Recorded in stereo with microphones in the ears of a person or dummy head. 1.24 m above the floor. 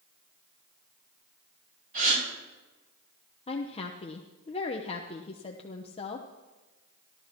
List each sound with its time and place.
1.9 s a gasp: 50° right (ahead or behind), 8.5 m
3.5 s a woman speaking: 25° left (ahead or behind), 0.8 m